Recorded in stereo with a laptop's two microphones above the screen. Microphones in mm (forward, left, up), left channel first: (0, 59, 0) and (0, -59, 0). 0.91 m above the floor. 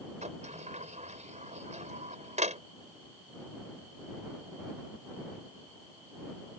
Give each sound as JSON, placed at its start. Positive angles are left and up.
{"t": 0.2, "sound": "a sliding door", "side_deg": -75}